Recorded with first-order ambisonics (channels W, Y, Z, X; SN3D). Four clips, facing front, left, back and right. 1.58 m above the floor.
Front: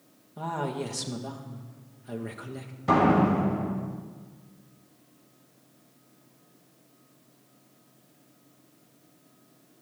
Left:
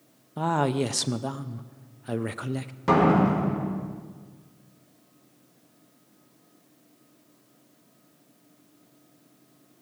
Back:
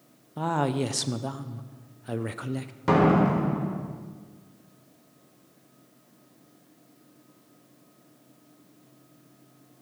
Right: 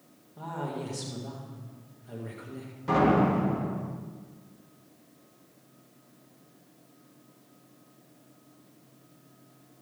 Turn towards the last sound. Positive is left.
turn(degrees=135)